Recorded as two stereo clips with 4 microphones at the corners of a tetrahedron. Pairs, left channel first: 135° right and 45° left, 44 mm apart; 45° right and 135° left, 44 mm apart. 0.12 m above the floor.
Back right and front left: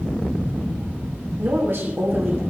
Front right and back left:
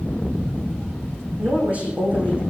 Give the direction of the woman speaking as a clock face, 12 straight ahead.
9 o'clock.